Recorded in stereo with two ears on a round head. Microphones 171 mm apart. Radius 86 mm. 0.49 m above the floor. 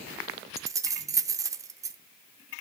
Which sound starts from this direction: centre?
Keys jangling, at 0.6 s.